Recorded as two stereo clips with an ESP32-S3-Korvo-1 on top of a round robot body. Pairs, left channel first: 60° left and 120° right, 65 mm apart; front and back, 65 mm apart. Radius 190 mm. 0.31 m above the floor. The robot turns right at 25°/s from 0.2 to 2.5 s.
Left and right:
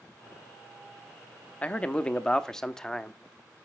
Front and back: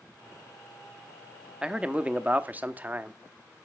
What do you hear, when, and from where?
1.6 s a man speaking: 115° left, 1.0 m; by 3.2 s 135° left, 1.0 m